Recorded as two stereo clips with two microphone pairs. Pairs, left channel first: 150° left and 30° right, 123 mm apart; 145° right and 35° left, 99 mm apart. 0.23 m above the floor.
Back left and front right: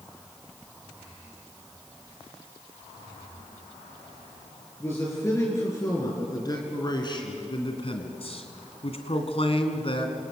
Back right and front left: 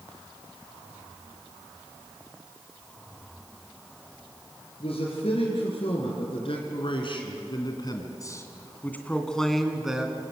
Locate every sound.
4.8 s a man speaking: 140° right, 5 m; by 10.2 s 110° left, 3 m